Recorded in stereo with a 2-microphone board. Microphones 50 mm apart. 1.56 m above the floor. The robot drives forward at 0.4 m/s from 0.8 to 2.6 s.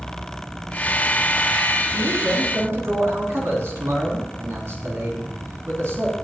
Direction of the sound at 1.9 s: 65° right (ahead or behind).